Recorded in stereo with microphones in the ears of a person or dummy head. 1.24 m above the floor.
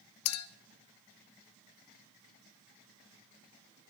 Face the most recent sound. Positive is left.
turn(degrees=80)